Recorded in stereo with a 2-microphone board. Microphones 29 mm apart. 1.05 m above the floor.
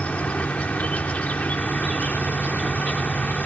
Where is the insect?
60° left (ahead or behind).